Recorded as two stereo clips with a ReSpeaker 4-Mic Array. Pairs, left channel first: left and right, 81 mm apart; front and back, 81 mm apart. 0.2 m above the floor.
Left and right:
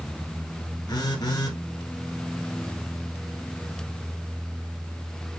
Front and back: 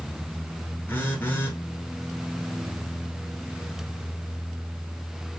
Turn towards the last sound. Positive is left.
turn(degrees=65)